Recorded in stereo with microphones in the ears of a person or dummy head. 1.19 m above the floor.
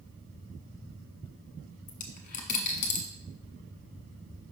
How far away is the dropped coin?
About 0.8 m.